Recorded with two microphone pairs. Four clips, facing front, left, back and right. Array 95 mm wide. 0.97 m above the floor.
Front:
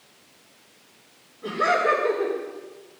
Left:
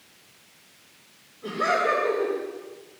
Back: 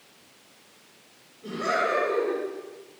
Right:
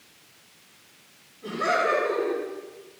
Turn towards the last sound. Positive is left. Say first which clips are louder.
# left 1 dB, front 5 dB
turn(degrees=10)